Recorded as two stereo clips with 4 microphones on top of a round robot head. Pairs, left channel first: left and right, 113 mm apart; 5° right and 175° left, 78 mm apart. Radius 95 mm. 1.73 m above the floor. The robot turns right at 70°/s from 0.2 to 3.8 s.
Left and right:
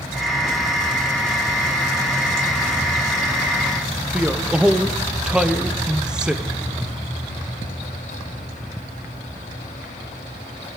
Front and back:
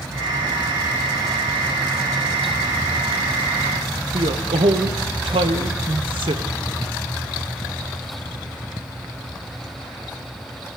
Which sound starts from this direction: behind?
A man speaking, at 4.1 s.